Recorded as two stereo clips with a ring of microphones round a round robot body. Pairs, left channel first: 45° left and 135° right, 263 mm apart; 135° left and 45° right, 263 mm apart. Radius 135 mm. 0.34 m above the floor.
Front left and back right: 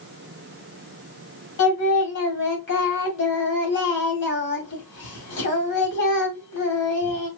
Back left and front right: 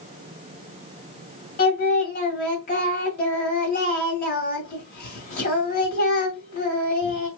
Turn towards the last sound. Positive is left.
turn(degrees=85)